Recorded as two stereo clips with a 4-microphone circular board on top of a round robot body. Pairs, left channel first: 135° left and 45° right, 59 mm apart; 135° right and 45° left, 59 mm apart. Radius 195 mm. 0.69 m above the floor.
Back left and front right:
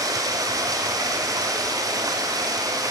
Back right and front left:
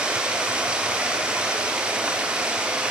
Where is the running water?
30° right, 0.9 m.